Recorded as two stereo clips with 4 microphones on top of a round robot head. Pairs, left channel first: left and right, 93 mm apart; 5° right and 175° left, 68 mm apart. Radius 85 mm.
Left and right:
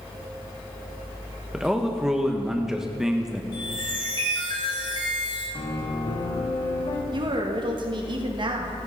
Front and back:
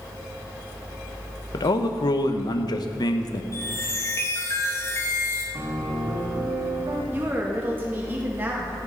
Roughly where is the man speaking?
Ahead.